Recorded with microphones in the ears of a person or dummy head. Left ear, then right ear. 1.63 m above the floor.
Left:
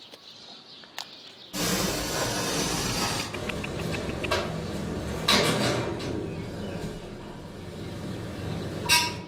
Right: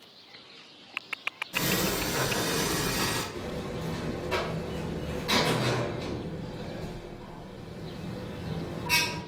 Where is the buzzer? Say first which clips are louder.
Left 3 dB; 50° left (ahead or behind), 0.8 m.